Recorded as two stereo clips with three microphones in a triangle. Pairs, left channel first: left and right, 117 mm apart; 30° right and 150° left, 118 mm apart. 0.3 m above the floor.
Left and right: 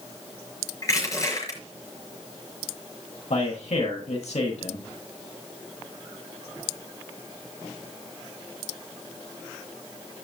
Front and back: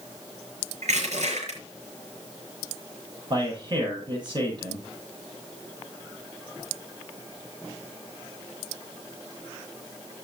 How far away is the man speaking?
About 8.5 m.